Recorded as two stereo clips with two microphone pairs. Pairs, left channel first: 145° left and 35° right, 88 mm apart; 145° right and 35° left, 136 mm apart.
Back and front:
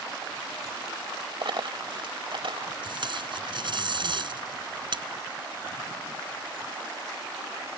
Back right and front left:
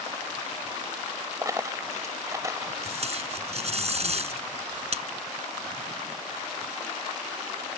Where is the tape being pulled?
5° right.